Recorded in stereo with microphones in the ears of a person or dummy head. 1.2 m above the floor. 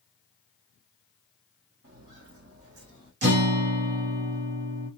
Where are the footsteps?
55° right (ahead or behind), 2.0 m.